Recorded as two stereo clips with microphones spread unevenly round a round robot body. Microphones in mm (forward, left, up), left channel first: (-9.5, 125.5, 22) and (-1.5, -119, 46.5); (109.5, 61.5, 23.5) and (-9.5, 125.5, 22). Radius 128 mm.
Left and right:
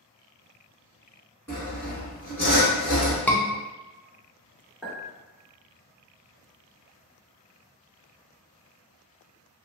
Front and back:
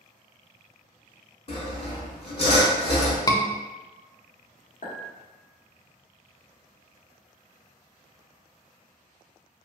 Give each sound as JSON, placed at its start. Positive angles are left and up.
{"t": 1.5, "sound": "sawing", "azimuth_deg": 10, "distance_m": 1.3}
{"t": 3.3, "sound": "a scream", "azimuth_deg": 20, "distance_m": 0.5}
{"t": 4.8, "sound": "a clink", "azimuth_deg": 5, "distance_m": 1.4}